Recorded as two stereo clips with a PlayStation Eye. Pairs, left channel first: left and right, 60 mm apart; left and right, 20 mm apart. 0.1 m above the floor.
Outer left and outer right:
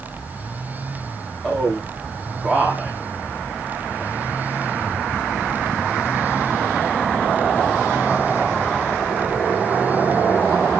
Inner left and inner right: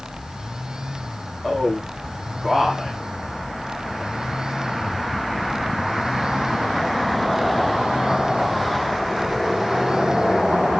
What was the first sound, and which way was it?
A man speaking, 10° left (ahead or behind).